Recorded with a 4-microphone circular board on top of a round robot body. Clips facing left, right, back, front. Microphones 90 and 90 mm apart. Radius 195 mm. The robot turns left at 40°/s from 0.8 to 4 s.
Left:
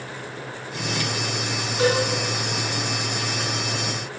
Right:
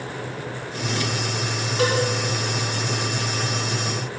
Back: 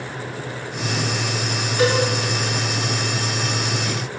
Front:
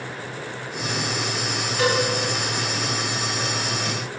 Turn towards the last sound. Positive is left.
turn(degrees=170)